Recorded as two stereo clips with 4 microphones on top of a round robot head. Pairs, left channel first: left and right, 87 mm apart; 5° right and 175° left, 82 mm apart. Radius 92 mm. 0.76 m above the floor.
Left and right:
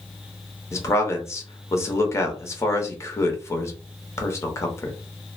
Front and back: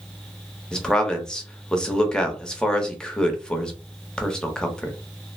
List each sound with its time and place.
0.7 s a man speaking: 70° left, 1.0 m